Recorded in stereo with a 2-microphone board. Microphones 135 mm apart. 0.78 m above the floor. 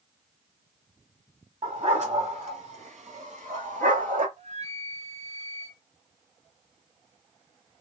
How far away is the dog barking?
About 2.5 m.